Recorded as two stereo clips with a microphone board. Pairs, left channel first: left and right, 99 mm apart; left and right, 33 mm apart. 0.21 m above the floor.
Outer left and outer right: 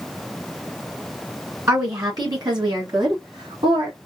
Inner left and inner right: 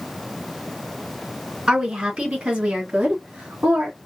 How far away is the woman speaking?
About 1.7 m.